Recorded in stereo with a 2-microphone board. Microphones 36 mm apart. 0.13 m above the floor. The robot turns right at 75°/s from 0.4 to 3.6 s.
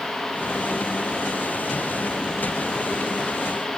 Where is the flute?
I don't hear a flute.